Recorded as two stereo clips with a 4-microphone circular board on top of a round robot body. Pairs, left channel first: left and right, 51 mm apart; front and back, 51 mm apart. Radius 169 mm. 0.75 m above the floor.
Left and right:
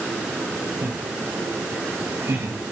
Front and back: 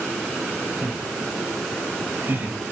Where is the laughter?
135° right, 5.5 m; by 2.6 s 125° right, 5.5 m.